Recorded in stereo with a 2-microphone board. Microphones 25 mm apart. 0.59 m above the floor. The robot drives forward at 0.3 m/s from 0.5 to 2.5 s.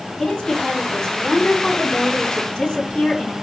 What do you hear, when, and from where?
0.2 s a woman speaking: 35° left (ahead or behind), 5 m